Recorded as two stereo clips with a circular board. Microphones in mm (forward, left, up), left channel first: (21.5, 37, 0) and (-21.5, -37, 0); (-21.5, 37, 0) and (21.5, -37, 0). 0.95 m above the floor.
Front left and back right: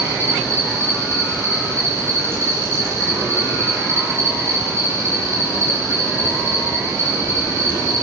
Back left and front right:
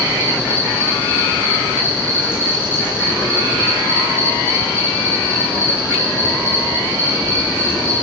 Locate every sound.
0.0 s an insect: straight behind, 5 m